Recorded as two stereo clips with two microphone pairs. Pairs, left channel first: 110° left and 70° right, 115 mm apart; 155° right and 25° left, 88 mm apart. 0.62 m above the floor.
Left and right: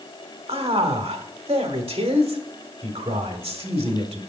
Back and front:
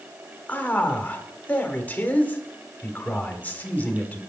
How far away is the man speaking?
About 1.6 m.